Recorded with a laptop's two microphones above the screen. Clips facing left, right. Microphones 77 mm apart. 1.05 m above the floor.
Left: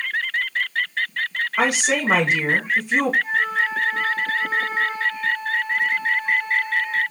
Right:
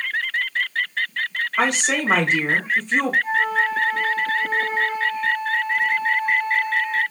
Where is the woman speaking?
5° left (ahead or behind), 1.0 m.